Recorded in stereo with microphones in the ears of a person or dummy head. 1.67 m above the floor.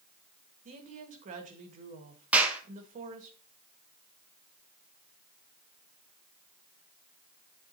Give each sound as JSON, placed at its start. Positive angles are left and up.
{"t": 0.7, "sound": "a woman speaking", "side_deg": -35, "distance_m": 1.6}
{"t": 2.3, "sound": "a clap", "side_deg": -10, "distance_m": 1.1}